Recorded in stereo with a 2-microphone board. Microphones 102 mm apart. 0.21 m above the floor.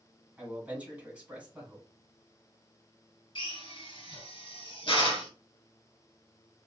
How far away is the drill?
About 1.7 m.